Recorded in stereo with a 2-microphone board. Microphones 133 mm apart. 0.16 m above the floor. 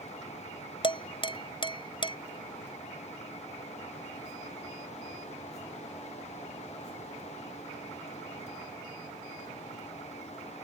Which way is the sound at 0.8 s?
40° left (ahead or behind).